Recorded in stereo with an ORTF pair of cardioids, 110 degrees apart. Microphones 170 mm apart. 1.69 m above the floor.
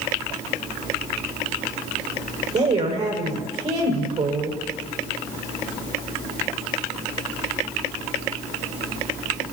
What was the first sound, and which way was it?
A woman speaking, 40° right.